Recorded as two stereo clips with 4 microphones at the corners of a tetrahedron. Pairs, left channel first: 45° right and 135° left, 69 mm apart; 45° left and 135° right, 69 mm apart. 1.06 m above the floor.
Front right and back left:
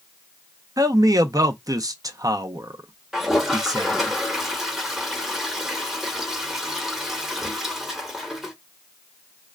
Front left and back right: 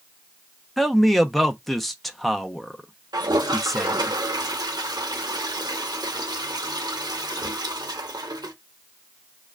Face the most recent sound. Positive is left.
turn(degrees=-140)